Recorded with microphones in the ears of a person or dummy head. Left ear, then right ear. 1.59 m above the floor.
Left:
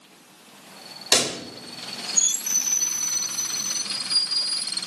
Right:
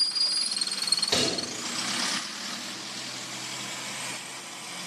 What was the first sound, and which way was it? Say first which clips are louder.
A pop: left 10 dB; 80° left.